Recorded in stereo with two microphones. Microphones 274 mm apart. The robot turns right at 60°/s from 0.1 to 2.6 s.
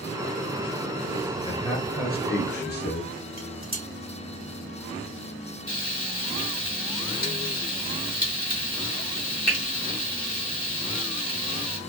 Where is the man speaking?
25° left, 1.2 m; by 3.2 s 95° left, 1.2 m.